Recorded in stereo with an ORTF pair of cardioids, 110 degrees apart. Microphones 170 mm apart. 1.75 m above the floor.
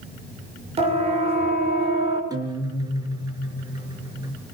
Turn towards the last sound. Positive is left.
turn(degrees=-25)